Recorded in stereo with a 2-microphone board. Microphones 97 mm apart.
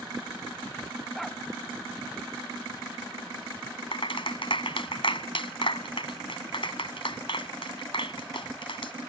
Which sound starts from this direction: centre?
A dog barking, at 1.1 s.